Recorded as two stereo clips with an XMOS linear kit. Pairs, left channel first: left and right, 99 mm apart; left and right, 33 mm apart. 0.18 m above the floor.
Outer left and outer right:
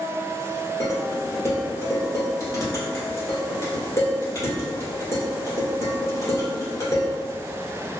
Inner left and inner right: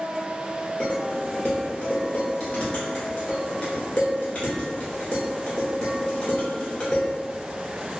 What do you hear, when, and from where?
0.8 s dishes clattering: 35° left (ahead or behind), 1.6 m